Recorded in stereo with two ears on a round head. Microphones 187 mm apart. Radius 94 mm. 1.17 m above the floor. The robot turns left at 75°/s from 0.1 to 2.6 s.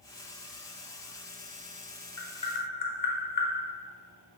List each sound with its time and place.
2.2 s tapping: 10° left (ahead or behind), 0.5 m; by 3.5 s 40° left (ahead or behind), 0.5 m